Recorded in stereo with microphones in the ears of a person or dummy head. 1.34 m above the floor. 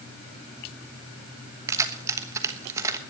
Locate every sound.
1.7 s keys jangling: 20° right (ahead or behind), 1.2 m